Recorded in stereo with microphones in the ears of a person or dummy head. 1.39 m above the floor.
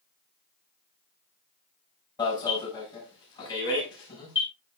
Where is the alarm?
25° left (ahead or behind), 8.5 m.